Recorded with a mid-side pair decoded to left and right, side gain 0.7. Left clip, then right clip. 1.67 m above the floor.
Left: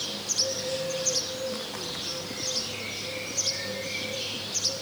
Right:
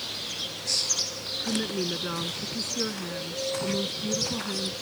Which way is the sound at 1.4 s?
50° right.